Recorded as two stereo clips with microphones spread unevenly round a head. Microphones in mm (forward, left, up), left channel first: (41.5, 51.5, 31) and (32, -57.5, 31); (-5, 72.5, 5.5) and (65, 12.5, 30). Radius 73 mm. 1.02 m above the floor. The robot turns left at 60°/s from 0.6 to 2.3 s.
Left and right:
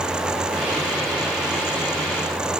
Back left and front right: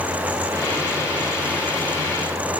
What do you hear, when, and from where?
Only background noise.